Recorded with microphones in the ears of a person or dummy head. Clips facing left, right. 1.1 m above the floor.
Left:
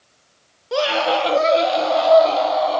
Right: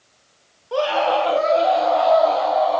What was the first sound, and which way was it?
A scream, 30° left (ahead or behind).